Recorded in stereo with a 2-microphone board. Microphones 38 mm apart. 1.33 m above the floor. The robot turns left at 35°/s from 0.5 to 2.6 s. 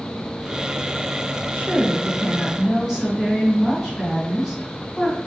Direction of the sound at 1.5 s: 125° right.